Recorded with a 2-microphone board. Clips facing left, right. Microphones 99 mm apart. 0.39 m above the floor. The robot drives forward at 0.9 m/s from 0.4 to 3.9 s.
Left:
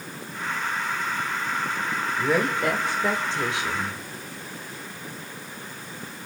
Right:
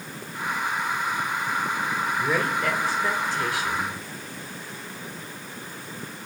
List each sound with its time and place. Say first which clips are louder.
2.2 s a woman speaking: left 4 dB; 15° left (ahead or behind), 1.6 m; by 4.0 s 20° left (ahead or behind), 1.1 m